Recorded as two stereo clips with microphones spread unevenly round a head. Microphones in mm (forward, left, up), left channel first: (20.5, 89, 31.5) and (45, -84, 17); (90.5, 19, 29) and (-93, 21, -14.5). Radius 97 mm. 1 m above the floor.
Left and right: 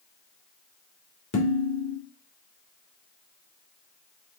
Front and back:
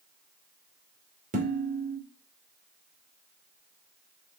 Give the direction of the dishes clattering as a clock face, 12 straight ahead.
8 o'clock.